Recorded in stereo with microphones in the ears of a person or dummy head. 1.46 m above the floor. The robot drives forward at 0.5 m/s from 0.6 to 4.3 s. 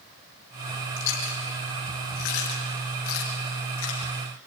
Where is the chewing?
65° left (ahead or behind), 5.5 m; by 4.1 s 75° left (ahead or behind), 5 m.